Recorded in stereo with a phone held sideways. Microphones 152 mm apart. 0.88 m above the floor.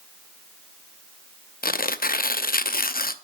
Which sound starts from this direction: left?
Tearing paper, at 1.6 s.